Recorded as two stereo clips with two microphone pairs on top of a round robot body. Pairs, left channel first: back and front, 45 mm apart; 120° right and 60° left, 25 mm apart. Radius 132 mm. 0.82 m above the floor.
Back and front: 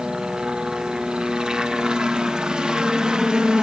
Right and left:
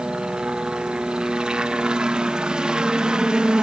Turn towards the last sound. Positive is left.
turn(degrees=80)